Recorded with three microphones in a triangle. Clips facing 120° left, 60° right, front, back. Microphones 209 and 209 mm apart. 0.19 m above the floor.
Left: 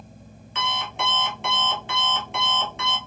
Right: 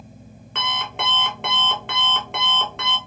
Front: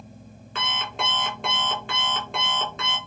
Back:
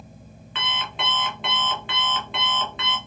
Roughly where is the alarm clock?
Ahead right.